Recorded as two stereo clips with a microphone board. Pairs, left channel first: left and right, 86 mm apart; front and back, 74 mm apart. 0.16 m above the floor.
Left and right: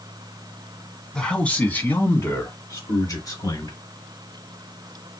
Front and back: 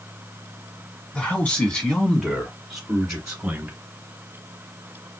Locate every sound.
1.1 s a man speaking: 25° left, 1.3 m; by 3.8 s 105° left, 1.9 m